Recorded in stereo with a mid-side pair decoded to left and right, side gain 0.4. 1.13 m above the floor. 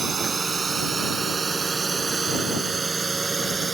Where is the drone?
40° right; by 3.8 s 30° right.